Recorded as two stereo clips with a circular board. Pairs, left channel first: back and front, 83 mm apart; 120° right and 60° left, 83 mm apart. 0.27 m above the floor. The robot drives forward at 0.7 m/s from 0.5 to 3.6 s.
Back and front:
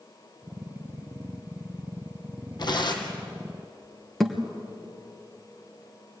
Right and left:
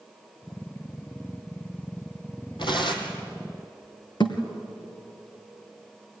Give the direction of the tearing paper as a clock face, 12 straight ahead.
5 o'clock.